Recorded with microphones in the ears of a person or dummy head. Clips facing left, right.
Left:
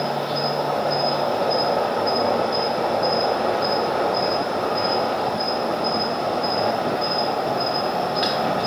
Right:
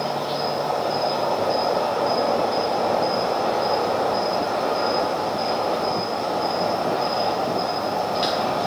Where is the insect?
20° left (ahead or behind), 1.1 m.